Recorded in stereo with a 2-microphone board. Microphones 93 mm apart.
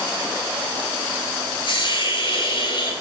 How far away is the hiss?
About 8 m.